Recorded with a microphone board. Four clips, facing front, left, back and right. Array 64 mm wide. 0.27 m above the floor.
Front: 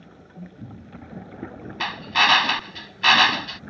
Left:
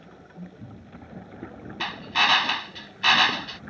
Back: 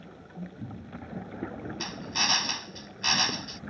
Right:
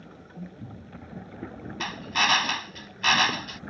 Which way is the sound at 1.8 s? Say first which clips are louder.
Left 2 dB, front 13 dB; 10° left.